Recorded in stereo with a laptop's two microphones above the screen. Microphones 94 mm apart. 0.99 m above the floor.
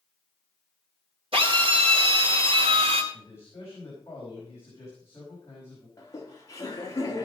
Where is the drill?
75° right (ahead or behind), 4 m.